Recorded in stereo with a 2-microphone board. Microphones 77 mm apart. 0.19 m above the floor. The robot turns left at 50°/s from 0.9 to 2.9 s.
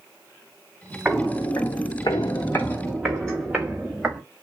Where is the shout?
I don't hear a shout.